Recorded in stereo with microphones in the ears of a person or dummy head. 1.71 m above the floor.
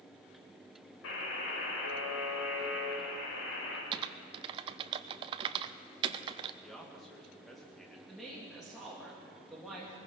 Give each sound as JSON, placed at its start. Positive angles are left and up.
{"t": 1.0, "sound": "a buzzer", "side_deg": 70, "distance_m": 3.5}
{"t": 3.9, "sound": "typing on a keyboard", "side_deg": -25, "distance_m": 0.5}
{"t": 6.6, "sound": "a man speaking", "side_deg": 0, "distance_m": 2.0}
{"t": 8.1, "sound": "a woman speaking", "side_deg": -5, "distance_m": 2.5}